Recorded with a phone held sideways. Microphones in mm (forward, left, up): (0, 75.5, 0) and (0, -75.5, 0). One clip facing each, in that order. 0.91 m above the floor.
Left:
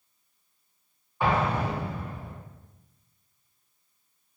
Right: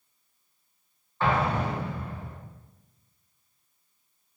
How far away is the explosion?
About 0.7 m.